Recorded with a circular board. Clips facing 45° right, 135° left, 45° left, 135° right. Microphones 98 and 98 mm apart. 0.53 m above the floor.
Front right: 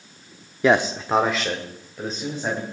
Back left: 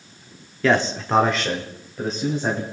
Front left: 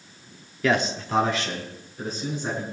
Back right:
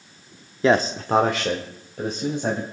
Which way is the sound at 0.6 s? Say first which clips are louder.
Front right 1 dB, back right 4 dB; 100° right.